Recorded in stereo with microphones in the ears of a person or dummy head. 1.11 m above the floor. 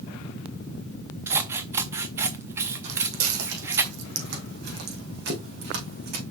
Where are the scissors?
10° right (ahead or behind), 0.6 m.